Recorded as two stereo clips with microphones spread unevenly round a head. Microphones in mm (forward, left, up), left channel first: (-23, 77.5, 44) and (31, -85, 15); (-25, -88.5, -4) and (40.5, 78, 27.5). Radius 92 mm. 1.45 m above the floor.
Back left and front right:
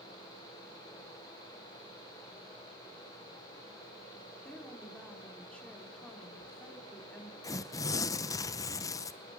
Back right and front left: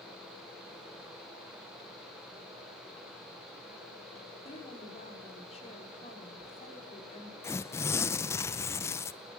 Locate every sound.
4.5 s a woman speaking: 170° right, 4.5 m
7.4 s tearing paper: 165° left, 0.6 m